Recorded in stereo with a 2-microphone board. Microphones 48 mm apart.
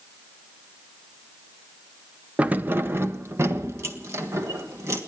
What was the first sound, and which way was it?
Keys jangling, 30° right (ahead or behind).